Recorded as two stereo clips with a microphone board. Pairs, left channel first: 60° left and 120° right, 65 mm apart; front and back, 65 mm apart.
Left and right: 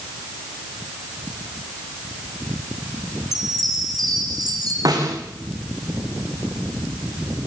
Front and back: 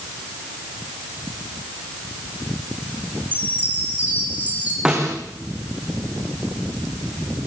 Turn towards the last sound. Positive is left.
turn(degrees=-105)